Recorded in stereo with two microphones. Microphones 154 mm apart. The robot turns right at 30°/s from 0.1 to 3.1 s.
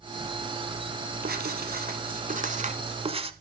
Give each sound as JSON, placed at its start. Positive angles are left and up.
{"t": 1.2, "sound": "writing", "azimuth_deg": -95, "distance_m": 1.0}